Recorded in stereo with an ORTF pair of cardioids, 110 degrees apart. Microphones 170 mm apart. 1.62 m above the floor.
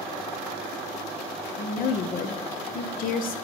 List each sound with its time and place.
1.6 s a woman speaking: 55° left, 1.0 m